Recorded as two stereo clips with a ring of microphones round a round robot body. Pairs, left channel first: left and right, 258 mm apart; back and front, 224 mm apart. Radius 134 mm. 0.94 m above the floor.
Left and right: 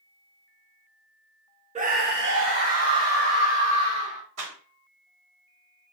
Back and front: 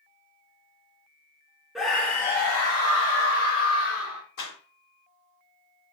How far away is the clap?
About 3.5 m.